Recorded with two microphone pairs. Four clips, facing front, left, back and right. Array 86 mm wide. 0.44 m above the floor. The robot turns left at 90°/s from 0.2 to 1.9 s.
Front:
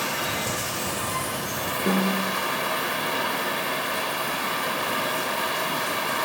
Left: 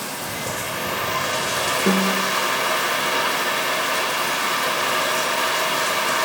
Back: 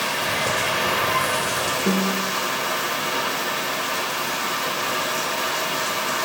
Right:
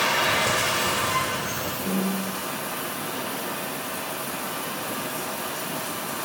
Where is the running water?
115° right, 1.3 m; by 6.2 s 90° left, 1.3 m.